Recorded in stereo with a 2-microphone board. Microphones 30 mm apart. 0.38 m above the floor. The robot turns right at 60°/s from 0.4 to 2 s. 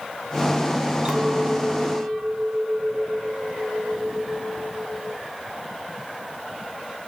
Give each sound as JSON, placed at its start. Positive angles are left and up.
{"t": 1.1, "sound": "a clink", "azimuth_deg": -145, "distance_m": 2.5}